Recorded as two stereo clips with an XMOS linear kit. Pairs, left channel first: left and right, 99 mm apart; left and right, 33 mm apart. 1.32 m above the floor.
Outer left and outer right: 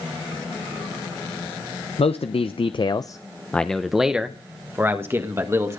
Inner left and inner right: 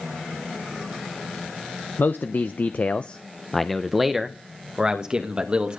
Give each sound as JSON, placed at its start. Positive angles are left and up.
{"t": 2.0, "sound": "a man speaking", "side_deg": 80, "distance_m": 0.8}